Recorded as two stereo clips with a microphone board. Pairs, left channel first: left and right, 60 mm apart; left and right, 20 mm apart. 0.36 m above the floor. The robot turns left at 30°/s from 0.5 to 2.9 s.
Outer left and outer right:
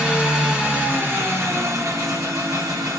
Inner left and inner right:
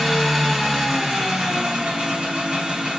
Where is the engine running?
20° right, 1.2 m; by 3.0 s 90° right, 1.2 m.